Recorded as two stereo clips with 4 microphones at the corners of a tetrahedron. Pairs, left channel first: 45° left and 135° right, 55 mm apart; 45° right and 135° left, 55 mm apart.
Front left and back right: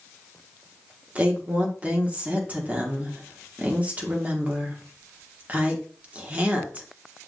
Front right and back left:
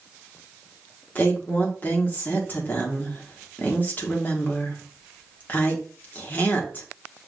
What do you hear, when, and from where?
1.1 s a woman speaking: 85° right, 1.1 m